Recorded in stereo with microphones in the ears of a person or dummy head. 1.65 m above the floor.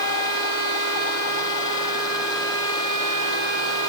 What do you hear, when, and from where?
Only background noise.